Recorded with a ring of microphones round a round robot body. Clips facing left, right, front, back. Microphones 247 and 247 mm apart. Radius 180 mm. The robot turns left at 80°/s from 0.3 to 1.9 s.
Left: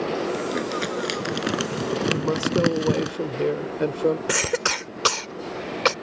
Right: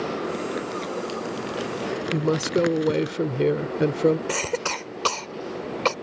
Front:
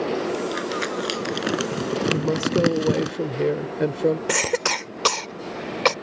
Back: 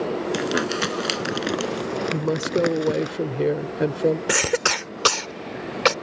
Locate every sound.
0.3 s crumpling: 175° left; by 3.1 s 50° left
2.1 s a woman speaking: 95° right
4.3 s a cough: 125° left